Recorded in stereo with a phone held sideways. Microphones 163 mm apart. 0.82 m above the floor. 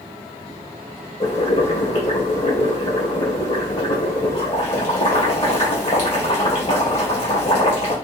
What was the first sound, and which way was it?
Boiling, 40° left (ahead or behind).